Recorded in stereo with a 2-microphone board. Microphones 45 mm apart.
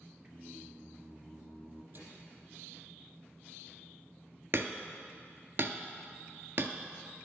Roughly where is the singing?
Right.